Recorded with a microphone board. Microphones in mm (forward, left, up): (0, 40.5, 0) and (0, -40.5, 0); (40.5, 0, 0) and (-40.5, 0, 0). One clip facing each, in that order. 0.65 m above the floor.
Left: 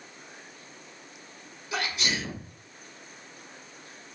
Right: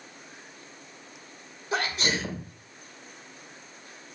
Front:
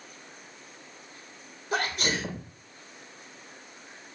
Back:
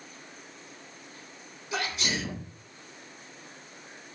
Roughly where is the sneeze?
Ahead right.